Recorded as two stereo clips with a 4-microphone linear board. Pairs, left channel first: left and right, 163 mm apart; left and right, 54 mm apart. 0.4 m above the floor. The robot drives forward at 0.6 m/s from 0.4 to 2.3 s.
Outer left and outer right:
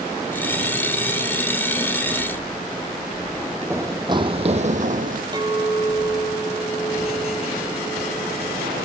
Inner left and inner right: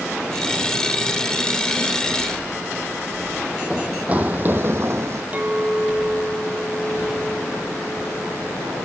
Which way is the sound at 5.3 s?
25° right (ahead or behind).